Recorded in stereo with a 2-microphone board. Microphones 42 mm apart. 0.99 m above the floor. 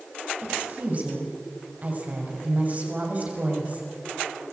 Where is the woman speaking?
35° right (ahead or behind), 5.5 m.